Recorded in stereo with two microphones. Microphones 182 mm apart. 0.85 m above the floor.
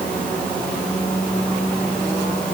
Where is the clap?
I don't hear a clap.